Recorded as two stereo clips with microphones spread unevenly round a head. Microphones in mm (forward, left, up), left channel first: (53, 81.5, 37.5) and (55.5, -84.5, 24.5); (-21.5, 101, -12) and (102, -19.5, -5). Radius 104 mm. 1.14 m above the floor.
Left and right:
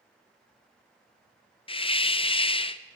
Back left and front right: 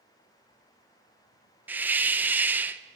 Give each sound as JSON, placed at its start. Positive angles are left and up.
{"t": 1.7, "sound": "a hiss", "azimuth_deg": 35, "distance_m": 1.2}